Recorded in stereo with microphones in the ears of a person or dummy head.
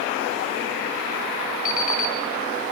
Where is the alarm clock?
50° left (ahead or behind), 2 m.